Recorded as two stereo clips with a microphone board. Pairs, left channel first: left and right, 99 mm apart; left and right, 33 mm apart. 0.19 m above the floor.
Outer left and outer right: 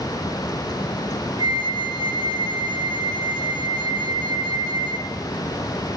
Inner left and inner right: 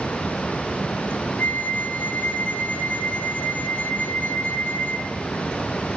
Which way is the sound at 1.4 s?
70° left (ahead or behind).